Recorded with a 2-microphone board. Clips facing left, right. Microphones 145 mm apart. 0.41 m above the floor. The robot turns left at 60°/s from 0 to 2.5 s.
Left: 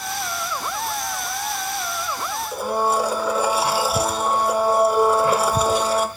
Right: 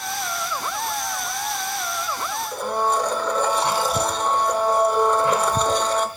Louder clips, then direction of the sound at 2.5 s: Left 2 dB; 10° left (ahead or behind).